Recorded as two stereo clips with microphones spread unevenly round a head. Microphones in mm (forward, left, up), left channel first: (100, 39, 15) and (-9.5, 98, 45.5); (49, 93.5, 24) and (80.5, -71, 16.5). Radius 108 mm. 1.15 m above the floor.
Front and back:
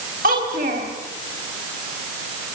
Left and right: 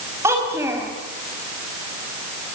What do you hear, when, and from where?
0.2 s a child speaking: 160° right, 4.5 m